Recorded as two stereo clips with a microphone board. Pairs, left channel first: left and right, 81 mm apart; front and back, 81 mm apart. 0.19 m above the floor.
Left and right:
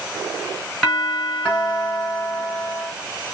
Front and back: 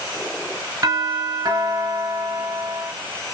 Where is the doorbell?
170° left, 3 m.